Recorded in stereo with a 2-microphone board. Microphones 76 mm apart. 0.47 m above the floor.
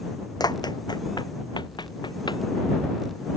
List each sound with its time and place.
0.4 s running footsteps: 60° left (ahead or behind); by 2.4 s 75° left (ahead or behind)